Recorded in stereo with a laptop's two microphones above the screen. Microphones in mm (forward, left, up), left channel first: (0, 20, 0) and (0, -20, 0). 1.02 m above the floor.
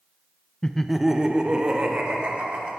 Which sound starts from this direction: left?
Laughter, at 0.6 s.